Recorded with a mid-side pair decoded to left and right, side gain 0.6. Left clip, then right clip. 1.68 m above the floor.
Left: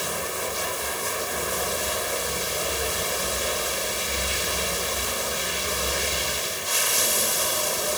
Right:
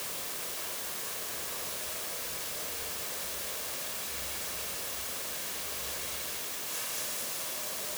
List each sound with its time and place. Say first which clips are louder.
0.0 s running water: left 12 dB; 65° left